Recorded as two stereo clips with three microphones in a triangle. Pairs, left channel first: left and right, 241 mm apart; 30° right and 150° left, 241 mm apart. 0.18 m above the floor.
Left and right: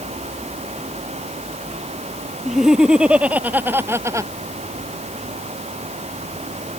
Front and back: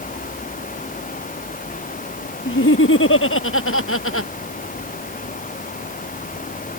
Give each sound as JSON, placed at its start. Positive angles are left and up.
{"t": 2.5, "sound": "laughter", "azimuth_deg": 0}